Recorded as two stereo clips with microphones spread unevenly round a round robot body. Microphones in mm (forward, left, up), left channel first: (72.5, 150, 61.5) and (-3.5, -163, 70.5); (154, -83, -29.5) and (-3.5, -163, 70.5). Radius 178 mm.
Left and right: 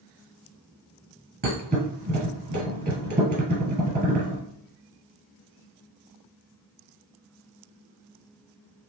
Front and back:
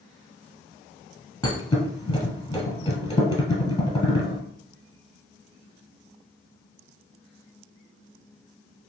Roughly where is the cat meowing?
I don't hear a cat meowing.